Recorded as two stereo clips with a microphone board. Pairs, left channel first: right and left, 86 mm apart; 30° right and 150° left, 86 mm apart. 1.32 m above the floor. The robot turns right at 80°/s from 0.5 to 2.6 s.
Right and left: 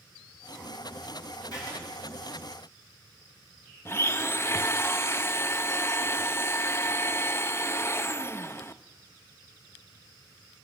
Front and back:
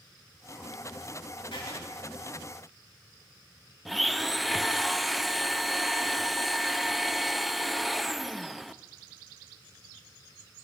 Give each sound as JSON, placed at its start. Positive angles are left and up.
{"t": 1.5, "sound": "writing", "azimuth_deg": -50, "distance_m": 5.0}
{"t": 3.9, "sound": "a blender", "azimuth_deg": -120, "distance_m": 0.5}